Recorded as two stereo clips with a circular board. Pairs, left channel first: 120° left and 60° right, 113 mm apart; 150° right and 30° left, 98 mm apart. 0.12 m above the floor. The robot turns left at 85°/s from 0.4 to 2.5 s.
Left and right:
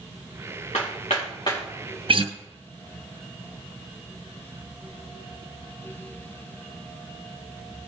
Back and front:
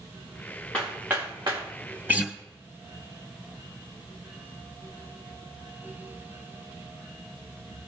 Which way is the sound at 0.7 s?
135° left.